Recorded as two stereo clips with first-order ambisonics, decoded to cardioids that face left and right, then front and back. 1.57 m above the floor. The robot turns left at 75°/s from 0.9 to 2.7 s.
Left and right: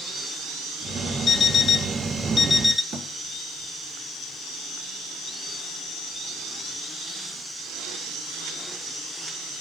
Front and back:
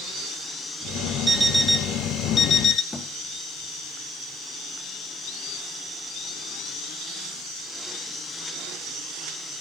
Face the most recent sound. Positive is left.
turn(degrees=-70)